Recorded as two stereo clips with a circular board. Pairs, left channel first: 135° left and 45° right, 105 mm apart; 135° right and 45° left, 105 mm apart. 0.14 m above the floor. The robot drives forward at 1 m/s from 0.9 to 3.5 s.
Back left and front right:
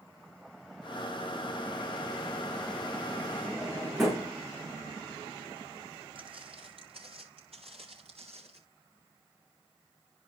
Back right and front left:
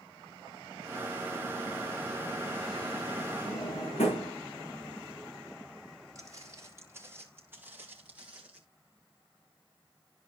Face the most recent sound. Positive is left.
turn(degrees=-35)